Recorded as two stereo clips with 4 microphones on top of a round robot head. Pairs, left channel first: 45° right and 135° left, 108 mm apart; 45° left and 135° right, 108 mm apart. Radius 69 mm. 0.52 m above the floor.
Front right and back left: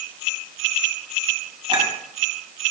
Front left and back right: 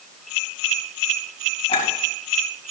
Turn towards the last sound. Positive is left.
turn(degrees=85)